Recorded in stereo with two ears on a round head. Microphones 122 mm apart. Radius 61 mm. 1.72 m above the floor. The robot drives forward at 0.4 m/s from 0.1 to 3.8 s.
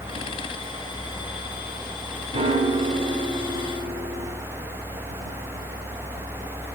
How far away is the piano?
About 4.5 m.